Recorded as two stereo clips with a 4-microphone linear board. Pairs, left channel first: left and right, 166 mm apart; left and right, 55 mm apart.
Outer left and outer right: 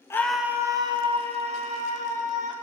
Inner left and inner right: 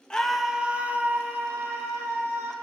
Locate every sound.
0.1 s a scream: 15° left (ahead or behind), 0.8 m; by 2.5 s 50° right (ahead or behind), 3 m